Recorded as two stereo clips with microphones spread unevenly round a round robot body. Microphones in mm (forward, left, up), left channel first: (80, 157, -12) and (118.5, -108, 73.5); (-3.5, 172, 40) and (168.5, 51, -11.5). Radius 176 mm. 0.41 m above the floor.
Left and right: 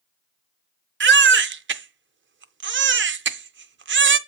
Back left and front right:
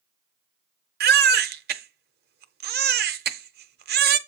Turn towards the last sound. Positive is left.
turn(degrees=-25)